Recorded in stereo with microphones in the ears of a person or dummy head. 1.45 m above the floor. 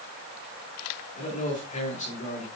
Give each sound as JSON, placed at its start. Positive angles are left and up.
{"t": 1.1, "sound": "a man speaking", "side_deg": 40, "distance_m": 3.5}